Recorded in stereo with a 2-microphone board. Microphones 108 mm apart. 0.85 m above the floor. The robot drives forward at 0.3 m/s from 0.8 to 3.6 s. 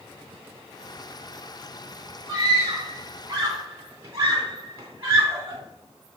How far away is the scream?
About 2.5 m.